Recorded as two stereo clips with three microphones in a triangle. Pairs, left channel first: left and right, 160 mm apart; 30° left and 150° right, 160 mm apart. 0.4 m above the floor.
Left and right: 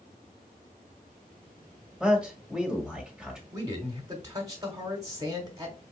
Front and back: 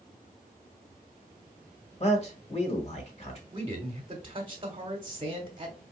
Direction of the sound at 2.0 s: 5° right.